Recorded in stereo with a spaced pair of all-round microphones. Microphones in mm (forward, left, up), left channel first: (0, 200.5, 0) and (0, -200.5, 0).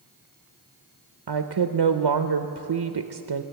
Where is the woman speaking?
80° right, 0.6 m.